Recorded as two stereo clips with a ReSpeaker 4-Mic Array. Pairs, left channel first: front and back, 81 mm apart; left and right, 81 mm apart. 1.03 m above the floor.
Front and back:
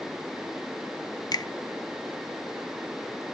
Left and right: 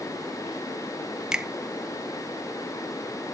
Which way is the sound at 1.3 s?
10° right.